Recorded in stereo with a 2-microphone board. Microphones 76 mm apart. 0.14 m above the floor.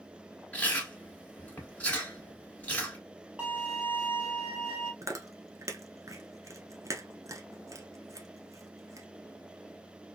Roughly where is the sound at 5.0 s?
Right.